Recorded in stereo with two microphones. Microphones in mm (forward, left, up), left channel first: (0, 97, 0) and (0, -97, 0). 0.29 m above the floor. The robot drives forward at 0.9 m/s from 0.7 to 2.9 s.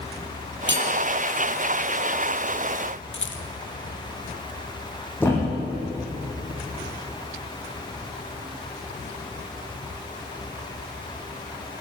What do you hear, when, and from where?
0.7 s cutlery clinking: 75° right (ahead or behind), 4.5 m; by 0.9 s 70° right (ahead or behind), 4.5 m
3.1 s a rattle: 85° left, 1.6 m
5.2 s a thud: 10° left (ahead or behind), 7 m